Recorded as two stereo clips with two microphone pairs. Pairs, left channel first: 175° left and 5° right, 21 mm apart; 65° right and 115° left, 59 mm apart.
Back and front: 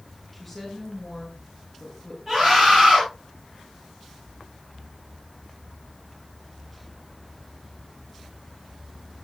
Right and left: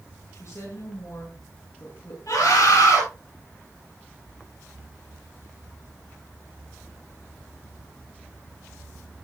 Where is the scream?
85° right, 10 m.